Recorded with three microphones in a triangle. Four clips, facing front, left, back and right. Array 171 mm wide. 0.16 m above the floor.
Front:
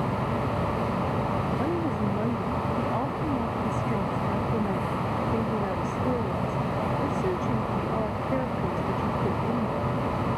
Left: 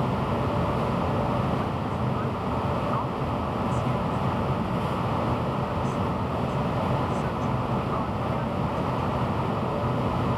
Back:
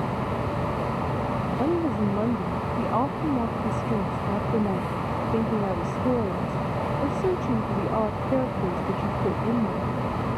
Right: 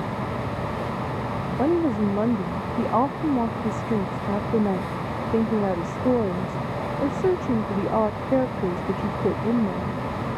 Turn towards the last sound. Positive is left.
turn(degrees=-105)